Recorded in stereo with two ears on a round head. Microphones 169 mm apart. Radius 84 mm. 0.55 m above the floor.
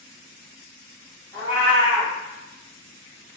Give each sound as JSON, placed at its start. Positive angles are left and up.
{"t": 1.3, "sound": "a cat meowing", "side_deg": 10, "distance_m": 1.3}